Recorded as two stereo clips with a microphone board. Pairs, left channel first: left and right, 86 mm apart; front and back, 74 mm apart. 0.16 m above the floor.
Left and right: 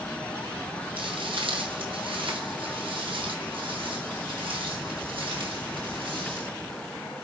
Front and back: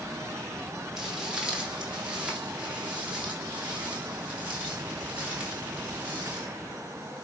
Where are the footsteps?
95° right, 3 m; by 6.5 s 110° right, 5.5 m.